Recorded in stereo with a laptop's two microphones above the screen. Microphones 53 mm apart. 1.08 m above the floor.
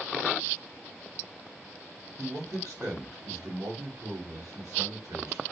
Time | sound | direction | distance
2.2 | a man speaking | 80° right | 1.0 m